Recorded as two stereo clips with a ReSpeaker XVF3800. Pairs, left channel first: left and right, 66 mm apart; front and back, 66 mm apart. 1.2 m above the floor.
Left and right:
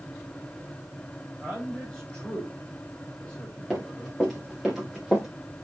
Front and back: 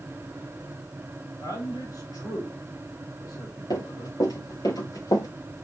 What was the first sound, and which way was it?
A man speaking, 15° left.